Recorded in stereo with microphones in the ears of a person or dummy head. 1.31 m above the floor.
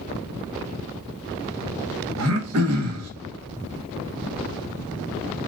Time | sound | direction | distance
2.2 | throat clearing | 75° right (ahead or behind) | 1.6 m